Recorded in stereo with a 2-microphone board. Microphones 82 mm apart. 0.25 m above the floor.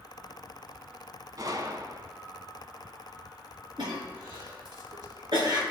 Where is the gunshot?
50° right (ahead or behind), 0.9 m.